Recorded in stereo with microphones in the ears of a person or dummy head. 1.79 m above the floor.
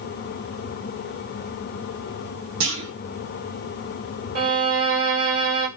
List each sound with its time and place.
2.6 s a clunk: 55° right (ahead or behind), 0.9 m
4.3 s a violin: 50° right (ahead or behind), 1.3 m